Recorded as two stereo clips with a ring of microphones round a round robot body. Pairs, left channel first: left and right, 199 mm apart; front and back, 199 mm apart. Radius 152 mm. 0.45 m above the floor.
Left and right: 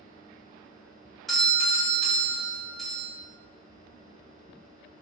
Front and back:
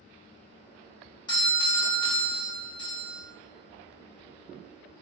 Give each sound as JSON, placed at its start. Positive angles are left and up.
{"t": 1.3, "sound": "a doorbell", "azimuth_deg": 0, "distance_m": 1.3}